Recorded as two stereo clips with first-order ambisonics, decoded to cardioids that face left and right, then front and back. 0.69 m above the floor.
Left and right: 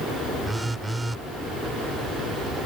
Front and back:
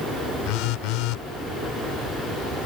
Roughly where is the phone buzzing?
Ahead.